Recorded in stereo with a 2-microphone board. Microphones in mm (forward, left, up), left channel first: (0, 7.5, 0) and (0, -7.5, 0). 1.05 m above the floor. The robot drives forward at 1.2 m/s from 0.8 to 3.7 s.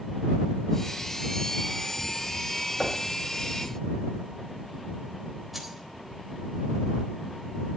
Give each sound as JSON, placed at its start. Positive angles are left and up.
{"t": 2.8, "sound": "knocking", "side_deg": 50, "distance_m": 5.0}
{"t": 5.5, "sound": "keys jangling", "side_deg": -5, "distance_m": 3.5}